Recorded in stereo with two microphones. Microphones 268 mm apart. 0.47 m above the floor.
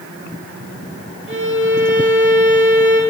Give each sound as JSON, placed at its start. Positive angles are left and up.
{"t": 1.3, "sound": "a violin", "side_deg": -45, "distance_m": 3.0}